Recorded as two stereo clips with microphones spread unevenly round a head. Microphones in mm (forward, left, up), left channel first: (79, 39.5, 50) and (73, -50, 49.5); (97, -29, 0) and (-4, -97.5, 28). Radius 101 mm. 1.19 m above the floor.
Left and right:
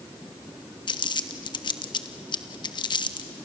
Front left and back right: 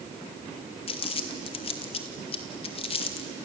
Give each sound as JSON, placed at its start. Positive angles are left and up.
{"t": 0.9, "sound": "crumpling", "azimuth_deg": 60, "distance_m": 1.3}